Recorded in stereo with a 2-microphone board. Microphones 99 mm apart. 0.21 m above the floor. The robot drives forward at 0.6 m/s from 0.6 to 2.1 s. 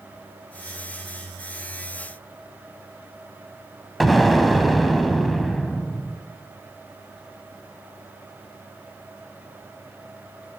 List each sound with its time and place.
4.0 s an explosion: centre (ahead or behind), 1.3 m